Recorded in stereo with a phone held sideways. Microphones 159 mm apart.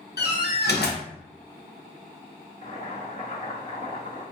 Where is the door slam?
85° left, 0.6 m.